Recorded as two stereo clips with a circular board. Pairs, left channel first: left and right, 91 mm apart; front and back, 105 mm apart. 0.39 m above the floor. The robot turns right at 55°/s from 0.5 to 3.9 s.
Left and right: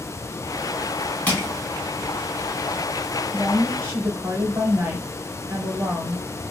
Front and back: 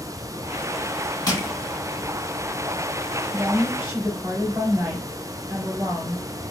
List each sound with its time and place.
1.3 s crushing: 25° left, 1.3 m; by 1.5 s 40° left, 1.3 m
3.3 s a woman speaking: 160° right, 1.3 m; by 6.3 s 130° right, 1.3 m